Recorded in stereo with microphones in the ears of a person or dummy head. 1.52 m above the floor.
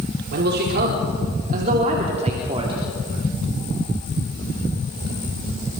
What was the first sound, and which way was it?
A man speaking, 60° right (ahead or behind).